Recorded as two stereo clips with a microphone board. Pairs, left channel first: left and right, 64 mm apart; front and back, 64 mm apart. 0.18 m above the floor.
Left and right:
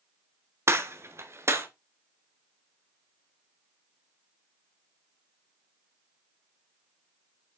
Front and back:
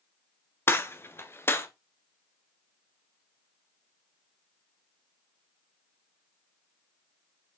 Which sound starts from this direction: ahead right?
A gunshot, at 0.7 s.